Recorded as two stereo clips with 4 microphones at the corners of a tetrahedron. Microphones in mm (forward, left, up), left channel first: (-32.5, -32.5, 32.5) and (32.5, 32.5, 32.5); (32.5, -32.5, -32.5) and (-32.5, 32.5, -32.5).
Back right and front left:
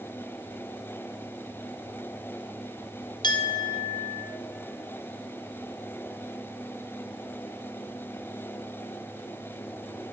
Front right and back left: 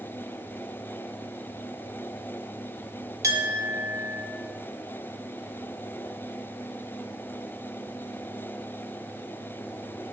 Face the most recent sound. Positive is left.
turn(degrees=-175)